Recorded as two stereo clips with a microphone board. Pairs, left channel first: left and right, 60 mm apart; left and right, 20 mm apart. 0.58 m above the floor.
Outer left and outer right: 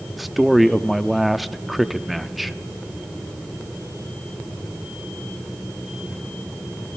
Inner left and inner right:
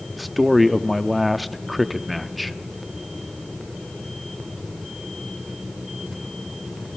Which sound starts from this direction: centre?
A man speaking, at 0.1 s.